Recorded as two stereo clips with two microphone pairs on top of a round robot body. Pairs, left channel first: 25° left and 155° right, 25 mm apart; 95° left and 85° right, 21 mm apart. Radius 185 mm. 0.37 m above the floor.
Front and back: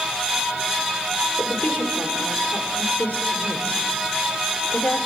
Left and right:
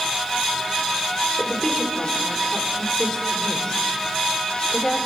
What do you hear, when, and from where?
1.4 s a woman speaking: 30° left, 2.5 m